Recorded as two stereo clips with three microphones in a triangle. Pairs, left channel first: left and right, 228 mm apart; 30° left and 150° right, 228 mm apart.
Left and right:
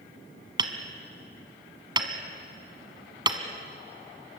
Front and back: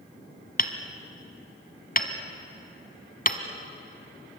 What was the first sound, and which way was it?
Hammering, 20° right.